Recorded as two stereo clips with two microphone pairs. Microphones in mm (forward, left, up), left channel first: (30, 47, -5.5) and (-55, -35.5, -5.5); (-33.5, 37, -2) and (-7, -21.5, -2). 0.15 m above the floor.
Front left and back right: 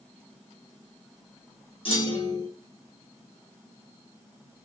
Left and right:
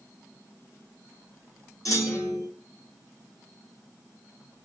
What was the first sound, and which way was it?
A clunk, 85° left.